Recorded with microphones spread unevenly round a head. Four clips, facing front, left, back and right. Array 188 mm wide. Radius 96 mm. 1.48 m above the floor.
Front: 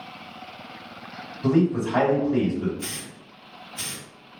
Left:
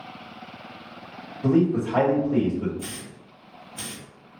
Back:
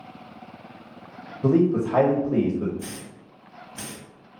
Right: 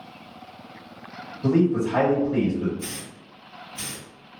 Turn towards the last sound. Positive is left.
turn(degrees=160)